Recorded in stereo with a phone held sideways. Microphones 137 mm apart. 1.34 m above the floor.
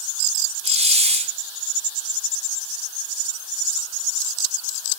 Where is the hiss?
50° right (ahead or behind), 0.5 m.